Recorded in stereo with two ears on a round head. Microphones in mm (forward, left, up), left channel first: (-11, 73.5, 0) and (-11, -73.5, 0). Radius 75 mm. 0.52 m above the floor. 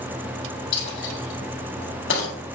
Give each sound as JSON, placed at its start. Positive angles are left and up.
{"t": 0.7, "sound": "a dropped coin", "side_deg": 80, "distance_m": 2.5}